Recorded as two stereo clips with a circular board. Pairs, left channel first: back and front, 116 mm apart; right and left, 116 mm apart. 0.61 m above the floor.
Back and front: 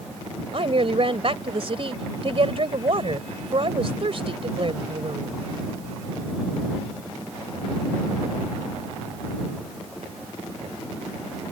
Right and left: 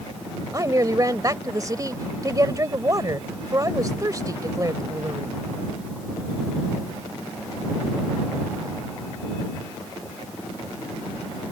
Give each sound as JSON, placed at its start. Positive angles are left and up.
{"t": 0.5, "sound": "a woman speaking", "azimuth_deg": 35}